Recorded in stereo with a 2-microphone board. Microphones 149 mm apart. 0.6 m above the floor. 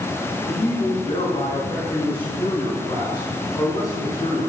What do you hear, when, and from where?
0.5 s a man speaking: 45° left (ahead or behind), 5.5 m; by 4.4 s 20° left (ahead or behind), 5.5 m